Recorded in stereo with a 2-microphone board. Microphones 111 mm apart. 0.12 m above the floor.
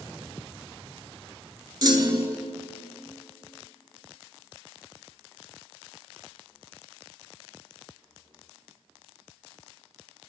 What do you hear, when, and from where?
1.8 s a clunk: 40° right (ahead or behind), 0.7 m